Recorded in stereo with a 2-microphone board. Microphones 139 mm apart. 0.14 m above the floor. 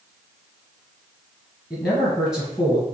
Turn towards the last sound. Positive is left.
turn(degrees=20)  # may be behind; listen again after turning